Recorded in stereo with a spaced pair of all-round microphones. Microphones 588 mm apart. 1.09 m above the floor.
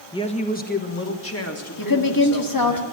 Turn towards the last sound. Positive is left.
turn(degrees=35)  # may be behind; listen again after turning